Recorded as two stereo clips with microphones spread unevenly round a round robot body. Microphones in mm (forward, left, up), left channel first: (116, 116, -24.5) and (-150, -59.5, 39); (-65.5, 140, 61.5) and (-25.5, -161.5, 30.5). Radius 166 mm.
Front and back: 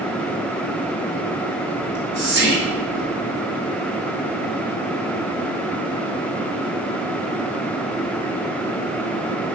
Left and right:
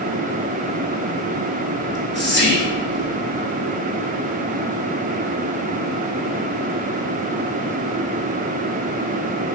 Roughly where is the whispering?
Behind left.